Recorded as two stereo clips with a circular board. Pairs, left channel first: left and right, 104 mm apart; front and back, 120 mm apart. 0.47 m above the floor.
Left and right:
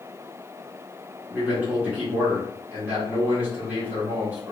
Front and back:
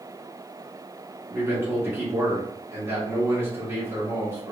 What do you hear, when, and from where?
1.3 s a man speaking: 140° right, 1.2 m